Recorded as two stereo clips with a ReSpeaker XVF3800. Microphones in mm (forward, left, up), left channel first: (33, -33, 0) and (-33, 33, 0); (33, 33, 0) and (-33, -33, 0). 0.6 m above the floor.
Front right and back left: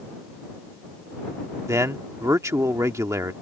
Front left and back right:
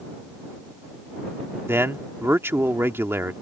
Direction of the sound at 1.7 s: 175° left.